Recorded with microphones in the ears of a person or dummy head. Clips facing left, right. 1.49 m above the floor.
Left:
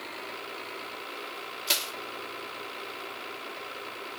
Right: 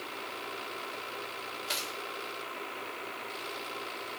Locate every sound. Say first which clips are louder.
1.7 s crushing: left 5 dB; 65° left (ahead or behind), 3.5 m